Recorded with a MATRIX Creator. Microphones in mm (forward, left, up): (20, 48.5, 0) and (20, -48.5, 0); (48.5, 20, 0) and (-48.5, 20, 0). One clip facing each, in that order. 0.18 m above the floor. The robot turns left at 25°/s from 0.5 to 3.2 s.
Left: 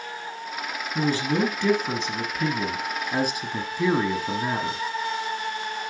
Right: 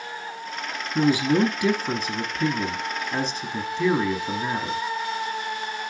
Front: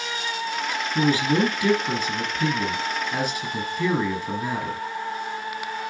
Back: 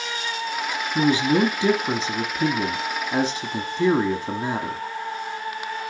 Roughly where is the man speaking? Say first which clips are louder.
Right 4 dB, back 2 dB; behind right.